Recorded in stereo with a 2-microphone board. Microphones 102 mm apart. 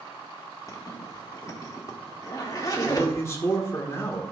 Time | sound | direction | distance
0.7 | a zipper | 30° left (ahead or behind) | 1.8 m
2.8 | a man speaking | 25° left (ahead or behind) | 1.7 m